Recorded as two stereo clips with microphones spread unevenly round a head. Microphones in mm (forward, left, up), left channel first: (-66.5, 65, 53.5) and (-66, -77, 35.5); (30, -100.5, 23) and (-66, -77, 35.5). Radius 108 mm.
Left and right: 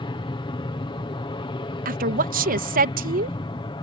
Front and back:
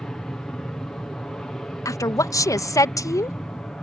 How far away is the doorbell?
I don't hear a doorbell.